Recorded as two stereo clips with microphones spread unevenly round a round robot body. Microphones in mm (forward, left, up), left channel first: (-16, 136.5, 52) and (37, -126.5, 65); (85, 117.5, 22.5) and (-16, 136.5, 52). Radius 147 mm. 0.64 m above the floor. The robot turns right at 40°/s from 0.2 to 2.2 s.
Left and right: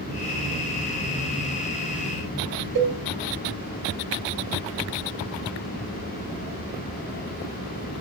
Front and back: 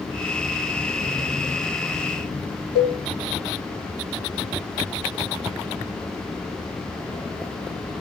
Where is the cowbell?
95° right, 1.6 m.